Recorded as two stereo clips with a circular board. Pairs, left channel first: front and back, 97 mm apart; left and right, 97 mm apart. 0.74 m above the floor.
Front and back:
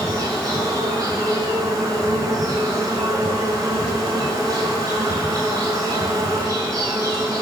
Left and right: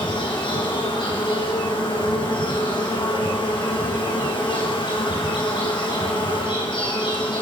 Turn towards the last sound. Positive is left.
turn(degrees=130)